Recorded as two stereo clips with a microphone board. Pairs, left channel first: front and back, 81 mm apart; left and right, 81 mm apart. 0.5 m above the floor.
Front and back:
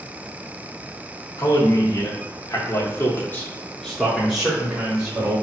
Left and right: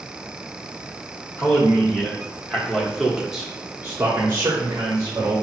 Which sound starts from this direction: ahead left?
A man speaking, at 1.4 s.